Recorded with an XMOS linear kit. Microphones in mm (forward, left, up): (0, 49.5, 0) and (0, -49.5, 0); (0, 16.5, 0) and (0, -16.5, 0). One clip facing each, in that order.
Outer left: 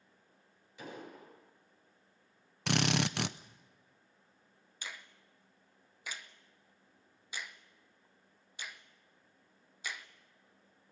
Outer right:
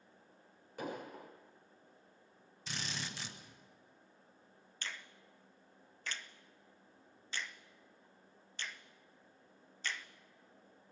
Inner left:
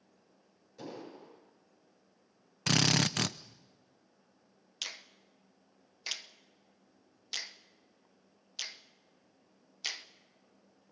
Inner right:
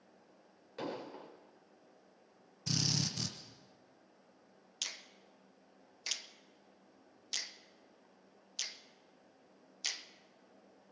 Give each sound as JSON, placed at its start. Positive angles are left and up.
{"t": 0.8, "sound": "an explosion", "side_deg": -55, "distance_m": 6.5}
{"t": 2.7, "sound": "a drill", "side_deg": 70, "distance_m": 0.7}
{"t": 4.8, "sound": "a finger snap", "side_deg": 10, "distance_m": 0.9}